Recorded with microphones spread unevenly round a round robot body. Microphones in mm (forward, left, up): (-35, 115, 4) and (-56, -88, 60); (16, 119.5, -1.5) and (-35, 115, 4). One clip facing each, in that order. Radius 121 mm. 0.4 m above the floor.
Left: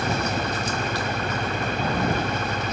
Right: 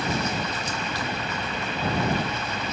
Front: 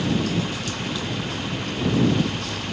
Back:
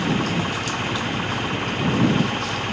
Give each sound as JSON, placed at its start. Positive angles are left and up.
{"t": 0.0, "sound": "an engine running", "azimuth_deg": 125}